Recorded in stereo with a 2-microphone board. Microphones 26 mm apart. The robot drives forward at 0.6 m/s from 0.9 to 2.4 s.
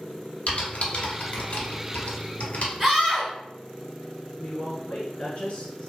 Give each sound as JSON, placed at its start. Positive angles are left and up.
{"t": 0.5, "sound": "typing on a keyboard", "side_deg": 50, "distance_m": 1.5}
{"t": 2.8, "sound": "a scream", "side_deg": -20, "distance_m": 1.3}
{"t": 4.4, "sound": "a woman speaking", "side_deg": 40, "distance_m": 1.8}